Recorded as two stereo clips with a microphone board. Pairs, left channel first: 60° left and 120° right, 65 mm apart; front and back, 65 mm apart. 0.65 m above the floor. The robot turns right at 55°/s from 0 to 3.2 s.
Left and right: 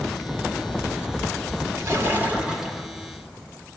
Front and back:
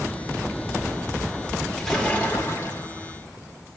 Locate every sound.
1.8 s a splash: 85° right, 2.0 m; by 2.9 s 25° right, 2.0 m